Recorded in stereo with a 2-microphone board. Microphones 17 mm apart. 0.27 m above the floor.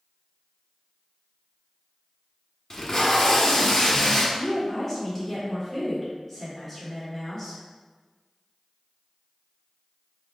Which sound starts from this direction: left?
Tape being pulled, at 2.7 s.